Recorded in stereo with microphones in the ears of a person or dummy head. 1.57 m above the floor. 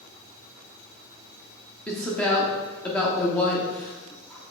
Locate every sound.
1.9 s a woman speaking: centre (ahead or behind), 0.5 m